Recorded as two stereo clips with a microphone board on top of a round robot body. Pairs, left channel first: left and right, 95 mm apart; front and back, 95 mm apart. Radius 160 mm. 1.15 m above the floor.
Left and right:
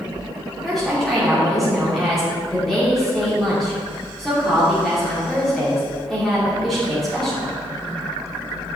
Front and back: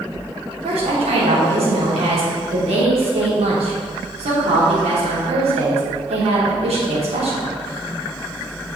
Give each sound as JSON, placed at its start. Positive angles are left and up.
{"t": 0.6, "sound": "a woman speaking", "azimuth_deg": 180, "distance_m": 3.0}